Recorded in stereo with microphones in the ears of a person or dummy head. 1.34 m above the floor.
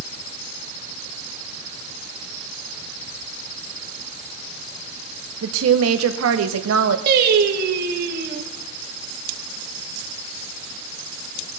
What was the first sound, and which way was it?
A woman speaking, 85° right.